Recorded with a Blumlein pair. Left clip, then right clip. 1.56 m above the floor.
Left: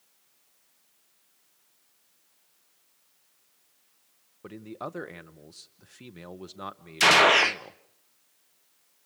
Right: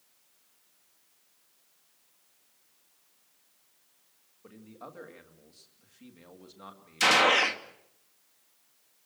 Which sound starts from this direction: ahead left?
A man speaking, at 4.4 s.